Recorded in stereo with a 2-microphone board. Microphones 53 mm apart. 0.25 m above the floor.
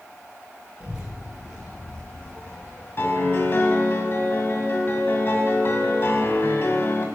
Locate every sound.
0.8 s a child speaking: 20° right (ahead or behind), 3 m; by 2.9 s 35° left (ahead or behind), 3 m
3.0 s a piano: 45° left (ahead or behind), 2 m